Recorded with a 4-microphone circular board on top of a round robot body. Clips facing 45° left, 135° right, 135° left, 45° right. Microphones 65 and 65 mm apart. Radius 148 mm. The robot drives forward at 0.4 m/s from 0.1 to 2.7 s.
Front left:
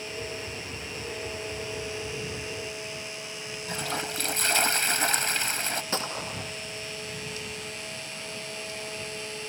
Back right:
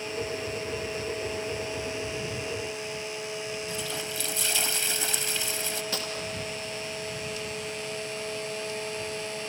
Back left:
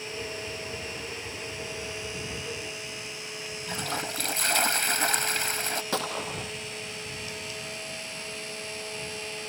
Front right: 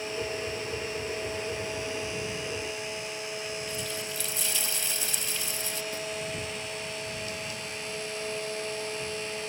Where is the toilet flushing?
95° left.